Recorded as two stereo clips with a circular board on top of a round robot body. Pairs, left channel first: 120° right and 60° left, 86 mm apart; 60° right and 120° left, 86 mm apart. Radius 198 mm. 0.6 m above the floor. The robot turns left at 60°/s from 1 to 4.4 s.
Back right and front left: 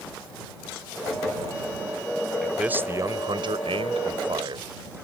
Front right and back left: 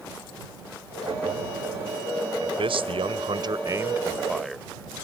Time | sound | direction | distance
2.4 | a man speaking | 150° left | ?